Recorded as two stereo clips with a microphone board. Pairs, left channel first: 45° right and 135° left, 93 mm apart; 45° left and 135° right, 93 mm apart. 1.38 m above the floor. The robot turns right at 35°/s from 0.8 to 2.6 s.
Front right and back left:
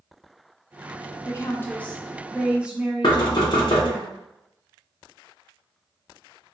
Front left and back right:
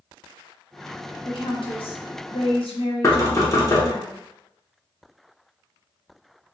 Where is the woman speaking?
10° left, 0.8 m; by 4.0 s 55° left, 0.8 m.